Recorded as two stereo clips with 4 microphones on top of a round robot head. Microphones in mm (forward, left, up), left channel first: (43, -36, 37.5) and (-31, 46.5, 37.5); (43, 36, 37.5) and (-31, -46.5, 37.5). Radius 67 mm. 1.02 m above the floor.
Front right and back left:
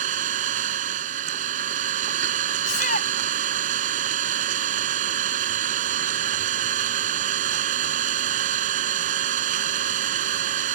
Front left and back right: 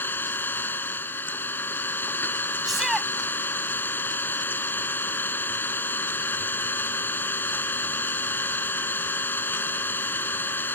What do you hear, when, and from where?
0.0 s an engine running: 125° left
2.6 s a shout: 45° right